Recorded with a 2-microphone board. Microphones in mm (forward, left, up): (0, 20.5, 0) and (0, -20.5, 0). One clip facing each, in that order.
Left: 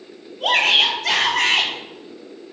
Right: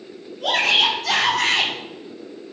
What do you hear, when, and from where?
0.4 s a shout: 55° left (ahead or behind), 4.5 m; by 1.7 s 65° left (ahead or behind), 4.5 m